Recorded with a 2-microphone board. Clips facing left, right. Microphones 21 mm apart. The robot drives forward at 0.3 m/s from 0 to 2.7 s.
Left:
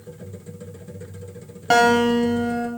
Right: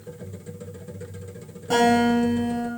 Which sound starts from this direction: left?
A guitar, at 1.7 s.